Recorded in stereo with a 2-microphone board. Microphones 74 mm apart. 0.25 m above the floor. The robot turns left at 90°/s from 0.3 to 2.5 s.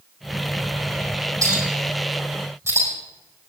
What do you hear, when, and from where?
1.4 s a clink: 40° right (ahead or behind), 6.5 m